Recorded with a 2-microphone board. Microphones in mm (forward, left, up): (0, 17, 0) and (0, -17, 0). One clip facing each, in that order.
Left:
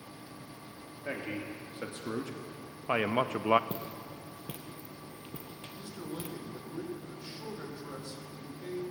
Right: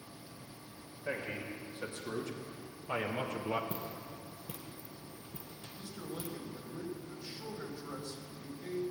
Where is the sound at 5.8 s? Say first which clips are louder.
Left 2 dB; 20° left (ahead or behind), 3 m.